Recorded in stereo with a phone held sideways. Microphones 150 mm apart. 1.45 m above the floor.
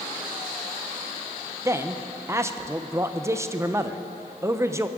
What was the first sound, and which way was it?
A man speaking, 20° right (ahead or behind).